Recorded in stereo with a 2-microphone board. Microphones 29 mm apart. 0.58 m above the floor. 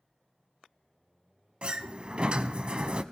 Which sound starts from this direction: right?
A sliding door, at 1.6 s.